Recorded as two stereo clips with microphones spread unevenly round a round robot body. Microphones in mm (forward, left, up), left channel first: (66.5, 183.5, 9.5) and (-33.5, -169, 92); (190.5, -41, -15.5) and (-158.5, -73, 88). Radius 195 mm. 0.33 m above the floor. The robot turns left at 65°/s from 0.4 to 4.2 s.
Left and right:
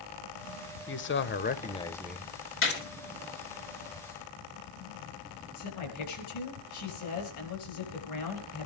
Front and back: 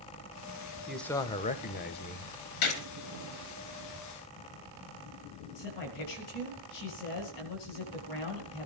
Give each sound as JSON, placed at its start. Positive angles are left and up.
{"t": 0.9, "sound": "a man speaking", "azimuth_deg": 80, "distance_m": 1.1}
{"t": 2.6, "sound": "a gunshot", "azimuth_deg": 20, "distance_m": 4.0}
{"t": 5.5, "sound": "a man speaking", "azimuth_deg": 35, "distance_m": 7.5}